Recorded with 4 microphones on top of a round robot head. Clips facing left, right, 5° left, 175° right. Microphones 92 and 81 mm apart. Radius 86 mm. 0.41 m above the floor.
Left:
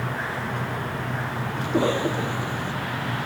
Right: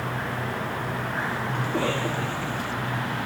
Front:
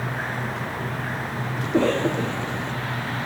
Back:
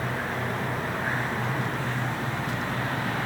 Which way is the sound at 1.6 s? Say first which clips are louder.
Left 6 dB, front 9 dB; 20° left.